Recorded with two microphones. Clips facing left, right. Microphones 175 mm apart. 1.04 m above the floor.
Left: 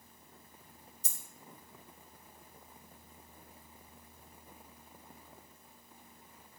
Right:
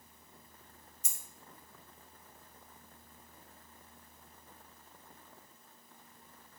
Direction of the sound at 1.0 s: 35° left (ahead or behind).